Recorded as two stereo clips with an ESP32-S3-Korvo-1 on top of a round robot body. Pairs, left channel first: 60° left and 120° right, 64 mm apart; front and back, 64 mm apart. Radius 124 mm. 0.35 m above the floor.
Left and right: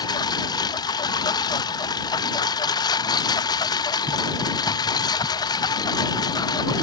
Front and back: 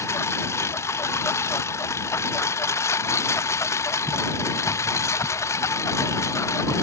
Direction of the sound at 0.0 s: 50° left.